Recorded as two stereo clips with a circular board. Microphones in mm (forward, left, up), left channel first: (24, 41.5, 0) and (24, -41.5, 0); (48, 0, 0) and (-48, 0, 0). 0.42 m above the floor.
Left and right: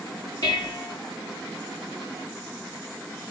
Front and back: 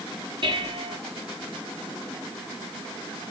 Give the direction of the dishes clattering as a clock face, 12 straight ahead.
7 o'clock.